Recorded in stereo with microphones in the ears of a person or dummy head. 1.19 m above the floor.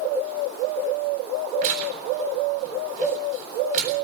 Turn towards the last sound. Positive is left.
turn(degrees=-45)  # may be behind; listen again after turning